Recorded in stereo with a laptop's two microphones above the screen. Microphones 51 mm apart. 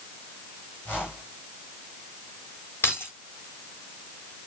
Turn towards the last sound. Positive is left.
turn(degrees=50)  # may be behind; listen again after turning